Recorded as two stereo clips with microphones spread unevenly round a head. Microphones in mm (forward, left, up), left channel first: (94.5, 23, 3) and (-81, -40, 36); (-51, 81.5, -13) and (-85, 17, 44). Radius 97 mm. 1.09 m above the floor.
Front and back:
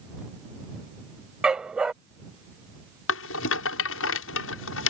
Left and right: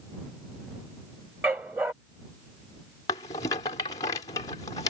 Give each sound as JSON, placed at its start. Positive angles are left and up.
{"t": 1.4, "sound": "a dog barking", "azimuth_deg": -80}
{"t": 3.1, "sound": "a rattle", "azimuth_deg": 15}